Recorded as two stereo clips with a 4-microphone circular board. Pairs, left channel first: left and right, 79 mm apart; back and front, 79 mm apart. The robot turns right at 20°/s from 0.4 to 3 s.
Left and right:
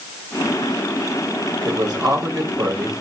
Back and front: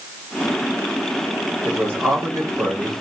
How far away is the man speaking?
About 4.5 m.